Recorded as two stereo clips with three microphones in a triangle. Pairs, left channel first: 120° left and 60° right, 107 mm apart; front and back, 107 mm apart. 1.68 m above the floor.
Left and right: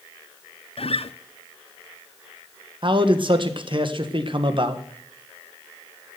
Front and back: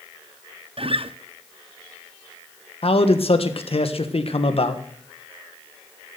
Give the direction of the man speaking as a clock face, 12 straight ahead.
1 o'clock.